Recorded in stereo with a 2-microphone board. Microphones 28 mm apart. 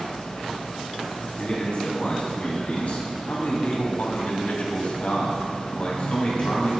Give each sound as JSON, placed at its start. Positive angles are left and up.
{"t": 1.4, "sound": "a man speaking", "side_deg": 55, "distance_m": 3.0}